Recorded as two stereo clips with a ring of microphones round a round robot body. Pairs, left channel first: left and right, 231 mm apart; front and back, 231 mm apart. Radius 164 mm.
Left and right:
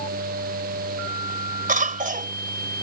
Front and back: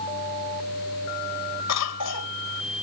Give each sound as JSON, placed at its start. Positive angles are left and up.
{"t": 1.7, "sound": "a cough", "azimuth_deg": -35}